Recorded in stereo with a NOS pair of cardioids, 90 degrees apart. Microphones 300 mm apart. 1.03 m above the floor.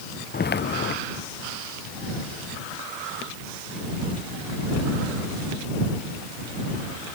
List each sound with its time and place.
0.3 s footsteps: 35° left